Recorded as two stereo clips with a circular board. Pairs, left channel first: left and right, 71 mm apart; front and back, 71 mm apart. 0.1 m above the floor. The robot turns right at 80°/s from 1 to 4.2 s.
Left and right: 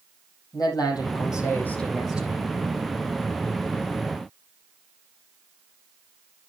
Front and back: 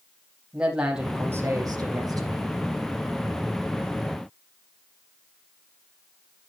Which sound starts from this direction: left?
A man speaking, at 0.5 s.